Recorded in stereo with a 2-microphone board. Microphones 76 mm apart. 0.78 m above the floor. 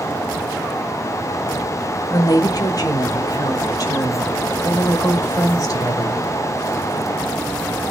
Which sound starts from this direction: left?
A woman speaking, at 2.1 s.